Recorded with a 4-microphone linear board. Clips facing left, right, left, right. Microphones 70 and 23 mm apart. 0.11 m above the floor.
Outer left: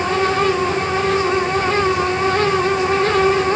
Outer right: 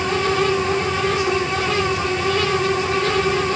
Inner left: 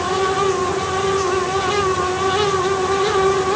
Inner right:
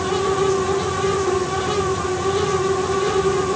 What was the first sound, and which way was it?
Only background noise.